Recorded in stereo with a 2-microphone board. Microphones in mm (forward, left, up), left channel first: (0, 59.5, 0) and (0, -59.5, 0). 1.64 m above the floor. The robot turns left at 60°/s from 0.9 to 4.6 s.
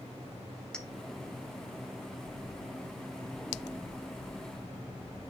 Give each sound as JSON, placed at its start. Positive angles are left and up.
{"t": 0.7, "sound": "a clink", "side_deg": 5, "distance_m": 0.9}